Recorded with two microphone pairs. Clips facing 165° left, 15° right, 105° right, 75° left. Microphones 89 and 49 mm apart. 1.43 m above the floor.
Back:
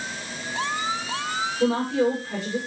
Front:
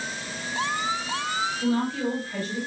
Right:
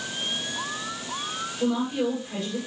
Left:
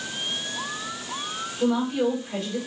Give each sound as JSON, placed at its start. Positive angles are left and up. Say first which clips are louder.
{"t": 1.6, "sound": "a woman speaking", "louder": "back 5 dB, left 3 dB", "azimuth_deg": 150, "distance_m": 7.5}